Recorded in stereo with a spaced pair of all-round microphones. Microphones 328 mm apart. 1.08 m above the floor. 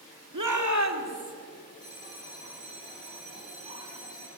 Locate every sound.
0.3 s a shout: 70° right (ahead or behind), 2 m; by 1.3 s 45° right (ahead or behind), 3 m
1.8 s a bell: 20° right (ahead or behind), 5 m